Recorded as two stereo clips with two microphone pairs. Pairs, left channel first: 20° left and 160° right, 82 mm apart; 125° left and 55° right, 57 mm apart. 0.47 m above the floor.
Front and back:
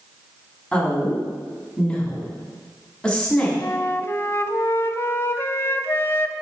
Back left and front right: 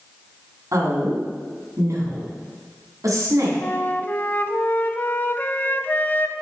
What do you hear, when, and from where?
0.7 s a woman speaking: 60° right, 4 m
3.6 s a flute: 75° left, 0.6 m